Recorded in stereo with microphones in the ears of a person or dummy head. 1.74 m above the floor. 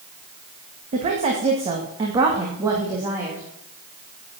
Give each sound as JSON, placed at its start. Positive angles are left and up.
{"t": 0.9, "sound": "a woman speaking", "side_deg": -40, "distance_m": 2.5}